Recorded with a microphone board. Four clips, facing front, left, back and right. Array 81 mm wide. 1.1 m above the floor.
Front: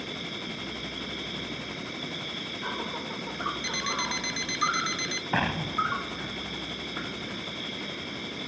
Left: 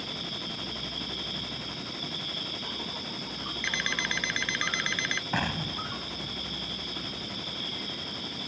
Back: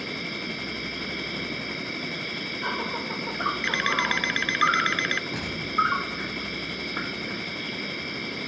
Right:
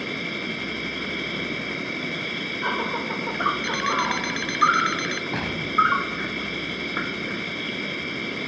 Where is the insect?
110° right.